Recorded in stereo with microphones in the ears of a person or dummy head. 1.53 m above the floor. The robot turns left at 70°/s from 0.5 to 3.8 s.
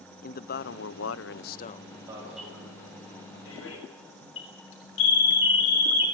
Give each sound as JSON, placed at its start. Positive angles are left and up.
{"t": 0.2, "sound": "a man speaking", "azimuth_deg": 125, "distance_m": 0.9}
{"t": 2.1, "sound": "an alarm", "side_deg": -25, "distance_m": 6.5}